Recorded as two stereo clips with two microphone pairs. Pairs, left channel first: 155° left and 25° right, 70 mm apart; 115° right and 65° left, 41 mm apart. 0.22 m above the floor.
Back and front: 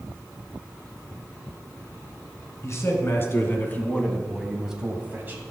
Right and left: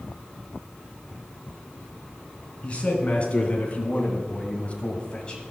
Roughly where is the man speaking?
Behind.